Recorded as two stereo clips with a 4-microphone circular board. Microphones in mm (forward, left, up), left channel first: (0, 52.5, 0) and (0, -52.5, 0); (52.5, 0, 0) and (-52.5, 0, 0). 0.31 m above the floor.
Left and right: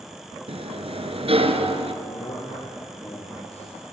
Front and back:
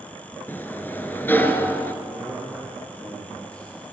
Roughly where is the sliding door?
Right.